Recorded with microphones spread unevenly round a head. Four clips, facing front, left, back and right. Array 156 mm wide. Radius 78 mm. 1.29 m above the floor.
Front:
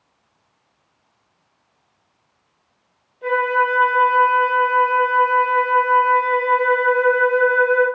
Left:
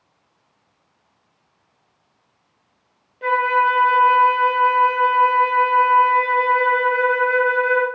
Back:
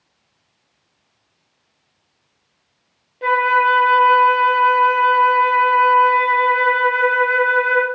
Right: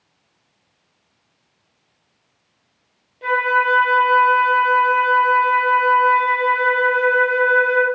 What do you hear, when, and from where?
3.2 s a flute: 175° left, 0.8 m